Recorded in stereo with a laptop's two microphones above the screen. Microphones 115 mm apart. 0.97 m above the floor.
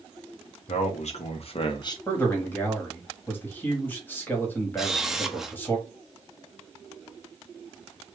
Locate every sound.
0.7 s a man speaking: 70° left (ahead or behind), 1.9 m; by 2.0 s 30° left (ahead or behind), 1.1 m
2.1 s a man speaking: 15° left (ahead or behind), 1.5 m
4.8 s a camera shutter: 5° right (ahead or behind), 0.7 m